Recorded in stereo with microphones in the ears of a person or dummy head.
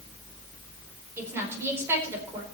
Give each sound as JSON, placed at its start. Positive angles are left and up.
{"t": 1.2, "sound": "a woman speaking", "side_deg": -15, "distance_m": 4.0}